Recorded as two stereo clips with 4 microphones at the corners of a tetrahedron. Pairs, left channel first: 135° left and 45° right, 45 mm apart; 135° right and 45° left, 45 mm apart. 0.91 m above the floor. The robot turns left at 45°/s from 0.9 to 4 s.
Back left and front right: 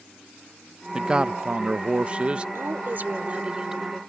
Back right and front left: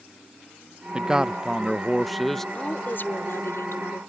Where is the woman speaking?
75° right; by 4.0 s 140° right.